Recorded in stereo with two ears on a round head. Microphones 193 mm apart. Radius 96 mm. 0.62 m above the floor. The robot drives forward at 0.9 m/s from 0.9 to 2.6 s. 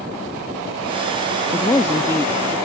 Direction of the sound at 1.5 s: 15° left (ahead or behind).